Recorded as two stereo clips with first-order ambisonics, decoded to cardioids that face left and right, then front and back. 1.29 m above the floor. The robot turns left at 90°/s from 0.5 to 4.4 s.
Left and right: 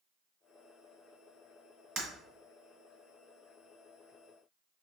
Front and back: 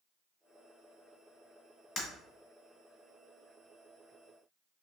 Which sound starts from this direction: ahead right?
Breaking glass, at 2.0 s.